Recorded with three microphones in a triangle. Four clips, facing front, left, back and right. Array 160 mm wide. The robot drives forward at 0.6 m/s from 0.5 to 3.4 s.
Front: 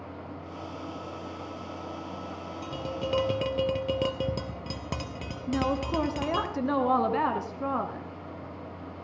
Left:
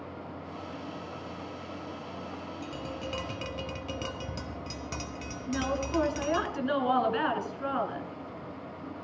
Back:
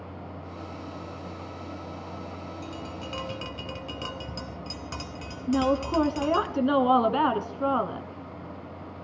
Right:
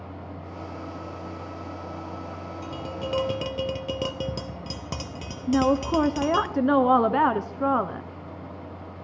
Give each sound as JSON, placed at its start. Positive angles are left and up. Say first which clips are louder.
{"t": 2.6, "sound": "tapping", "louder": "right 6 dB, front 4 dB", "azimuth_deg": -30, "distance_m": 1.8}
{"t": 5.5, "sound": "a woman speaking", "louder": "right 9 dB, back 4 dB", "azimuth_deg": -105, "distance_m": 2.0}